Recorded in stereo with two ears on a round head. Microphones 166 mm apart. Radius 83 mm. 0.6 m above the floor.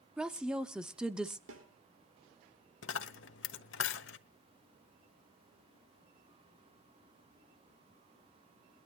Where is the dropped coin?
70° left (ahead or behind), 1.1 m.